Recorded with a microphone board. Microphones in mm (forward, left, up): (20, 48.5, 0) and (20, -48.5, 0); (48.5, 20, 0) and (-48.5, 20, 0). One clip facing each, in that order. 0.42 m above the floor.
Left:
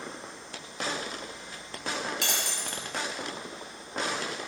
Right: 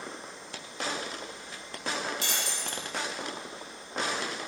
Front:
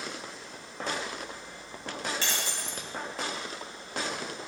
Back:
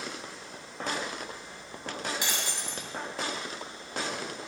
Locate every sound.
2.2 s breaking glass: 105° left, 1.9 m